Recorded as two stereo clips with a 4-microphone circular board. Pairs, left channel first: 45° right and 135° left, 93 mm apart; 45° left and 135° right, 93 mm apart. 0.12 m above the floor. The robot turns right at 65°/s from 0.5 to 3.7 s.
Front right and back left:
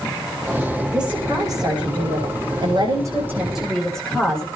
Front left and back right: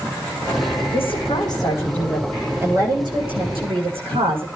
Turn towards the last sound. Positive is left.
turn(degrees=-130)